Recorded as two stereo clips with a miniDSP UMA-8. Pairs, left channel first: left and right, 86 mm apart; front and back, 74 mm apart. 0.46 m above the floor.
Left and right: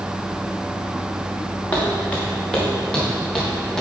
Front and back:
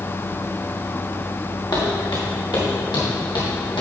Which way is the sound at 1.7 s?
20° left.